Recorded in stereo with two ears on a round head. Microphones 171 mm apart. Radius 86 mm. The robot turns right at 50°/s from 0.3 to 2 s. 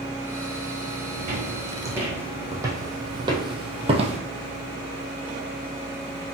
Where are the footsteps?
45° right (ahead or behind), 2.5 m; by 4.2 s 35° right (ahead or behind), 1.3 m.